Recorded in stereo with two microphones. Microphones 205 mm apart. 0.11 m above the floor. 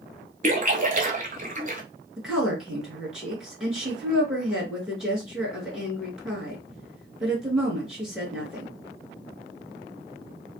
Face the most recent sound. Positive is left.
turn(degrees=0)  # may be behind; listen again after turning